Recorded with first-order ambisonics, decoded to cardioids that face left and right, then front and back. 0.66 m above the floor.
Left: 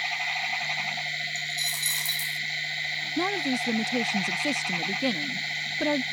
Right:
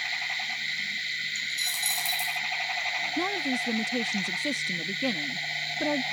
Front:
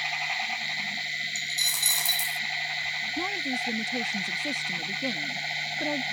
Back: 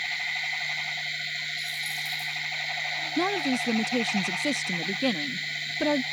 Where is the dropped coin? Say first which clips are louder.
Even, front 4 dB; straight ahead.